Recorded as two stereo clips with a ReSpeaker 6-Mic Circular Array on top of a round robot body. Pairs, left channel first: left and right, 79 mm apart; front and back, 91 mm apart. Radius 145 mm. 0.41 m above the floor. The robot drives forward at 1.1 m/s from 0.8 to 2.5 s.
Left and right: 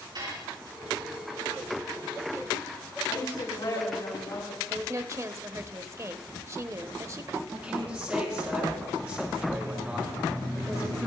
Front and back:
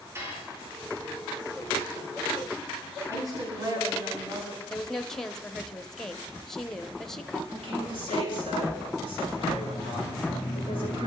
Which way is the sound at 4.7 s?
85° right.